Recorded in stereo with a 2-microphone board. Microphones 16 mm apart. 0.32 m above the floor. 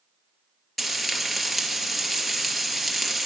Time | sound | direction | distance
0.8 | frying | 5° left (ahead or behind) | 2.5 m